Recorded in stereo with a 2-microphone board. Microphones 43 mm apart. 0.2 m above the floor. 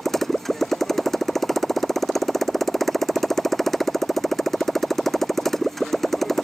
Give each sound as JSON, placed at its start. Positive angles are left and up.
{"t": 0.0, "sound": "a motorcycle", "side_deg": 5}